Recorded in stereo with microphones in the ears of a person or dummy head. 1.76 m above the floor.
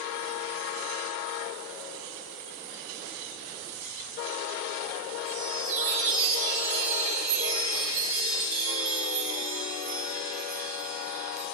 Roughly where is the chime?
Right.